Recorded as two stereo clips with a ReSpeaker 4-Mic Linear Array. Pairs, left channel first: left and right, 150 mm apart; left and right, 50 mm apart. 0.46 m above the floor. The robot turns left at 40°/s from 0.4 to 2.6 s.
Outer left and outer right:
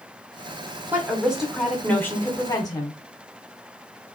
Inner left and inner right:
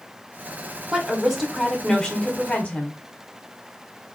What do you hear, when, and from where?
0.9 s a woman speaking: 155° right, 1.1 m; by 3.0 s 135° left, 1.1 m